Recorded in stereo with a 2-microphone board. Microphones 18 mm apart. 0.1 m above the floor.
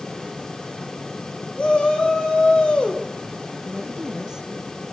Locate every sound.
1.6 s a shout: 65° left (ahead or behind), 5 m
3.6 s a woman speaking: 35° right (ahead or behind), 1.5 m